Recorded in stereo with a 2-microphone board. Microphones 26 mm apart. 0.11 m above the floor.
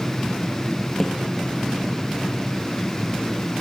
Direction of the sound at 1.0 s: 15° left (ahead or behind).